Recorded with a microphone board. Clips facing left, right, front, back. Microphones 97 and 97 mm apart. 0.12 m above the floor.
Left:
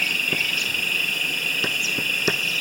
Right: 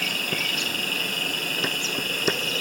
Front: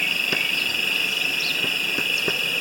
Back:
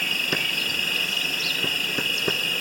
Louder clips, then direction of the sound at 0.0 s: Left 1 dB, front 1 dB; 150° right.